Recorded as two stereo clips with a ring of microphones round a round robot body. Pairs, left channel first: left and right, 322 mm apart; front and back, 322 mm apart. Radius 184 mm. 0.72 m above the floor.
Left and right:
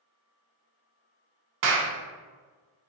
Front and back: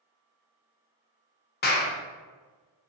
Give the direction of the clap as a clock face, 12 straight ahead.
2 o'clock.